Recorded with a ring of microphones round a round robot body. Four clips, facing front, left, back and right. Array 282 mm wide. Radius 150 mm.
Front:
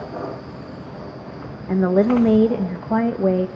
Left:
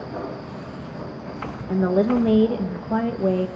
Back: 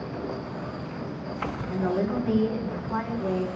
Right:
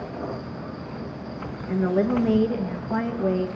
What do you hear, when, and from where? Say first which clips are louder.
1.7 s a woman speaking: left 3 dB, front 11 dB; 15° left, 1.0 m